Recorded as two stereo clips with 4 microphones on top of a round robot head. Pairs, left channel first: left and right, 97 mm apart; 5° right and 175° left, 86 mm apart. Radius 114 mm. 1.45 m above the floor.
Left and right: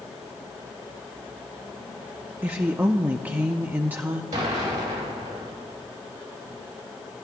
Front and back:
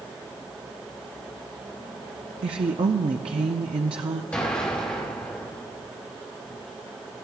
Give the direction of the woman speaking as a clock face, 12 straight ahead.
5 o'clock.